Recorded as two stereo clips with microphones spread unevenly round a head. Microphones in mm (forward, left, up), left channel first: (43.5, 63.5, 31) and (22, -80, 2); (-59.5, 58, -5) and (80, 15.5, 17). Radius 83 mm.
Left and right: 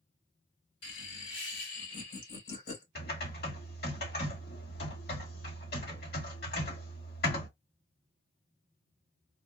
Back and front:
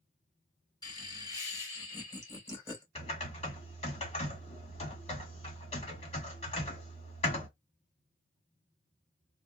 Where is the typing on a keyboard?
115° left, 2 m.